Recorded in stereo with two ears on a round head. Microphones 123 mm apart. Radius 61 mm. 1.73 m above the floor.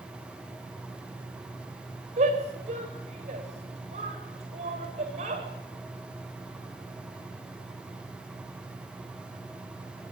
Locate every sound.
2.2 s a shout: 50° right (ahead or behind), 9 m